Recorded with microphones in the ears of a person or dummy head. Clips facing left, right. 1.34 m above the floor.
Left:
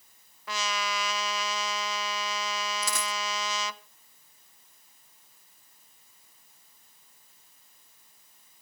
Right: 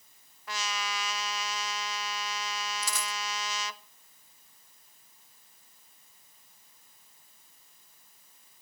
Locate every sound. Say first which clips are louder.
0.5 s a trumpet: left 4 dB; 70° left (ahead or behind), 0.9 m
2.8 s a dropped coin: left 4 dB; 50° left (ahead or behind), 1.1 m